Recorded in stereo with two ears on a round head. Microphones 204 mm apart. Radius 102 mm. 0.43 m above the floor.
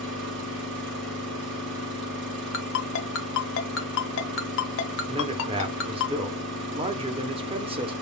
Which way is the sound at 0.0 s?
55° right (ahead or behind).